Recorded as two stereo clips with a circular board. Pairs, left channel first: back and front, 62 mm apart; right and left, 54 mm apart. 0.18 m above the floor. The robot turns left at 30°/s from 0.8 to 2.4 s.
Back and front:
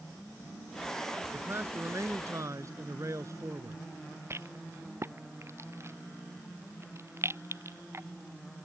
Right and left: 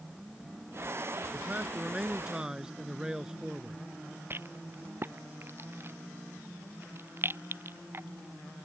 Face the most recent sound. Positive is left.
turn(degrees=45)